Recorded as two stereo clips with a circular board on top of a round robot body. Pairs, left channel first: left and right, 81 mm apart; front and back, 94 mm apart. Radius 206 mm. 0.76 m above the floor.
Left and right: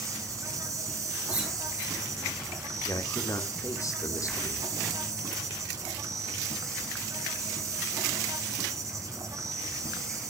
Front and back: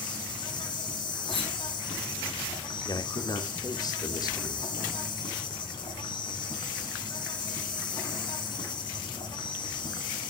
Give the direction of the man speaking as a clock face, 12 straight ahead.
11 o'clock.